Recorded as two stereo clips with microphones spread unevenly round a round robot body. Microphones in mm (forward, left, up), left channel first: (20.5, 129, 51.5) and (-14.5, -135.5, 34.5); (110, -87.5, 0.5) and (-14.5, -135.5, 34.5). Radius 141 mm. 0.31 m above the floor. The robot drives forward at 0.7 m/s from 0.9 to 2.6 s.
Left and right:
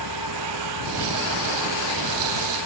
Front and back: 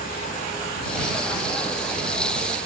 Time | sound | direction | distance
0.0 | an engine running | 70° left | ?